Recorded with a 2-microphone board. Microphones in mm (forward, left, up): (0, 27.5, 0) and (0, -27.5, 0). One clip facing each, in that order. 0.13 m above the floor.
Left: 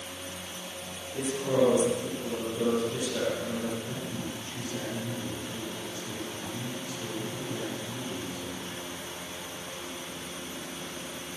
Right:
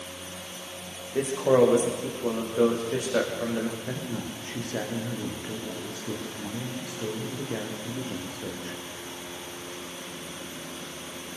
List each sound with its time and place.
1.1 s a man speaking: 60° right (ahead or behind), 9.5 m
3.8 s a man speaking: 65° right (ahead or behind), 7 m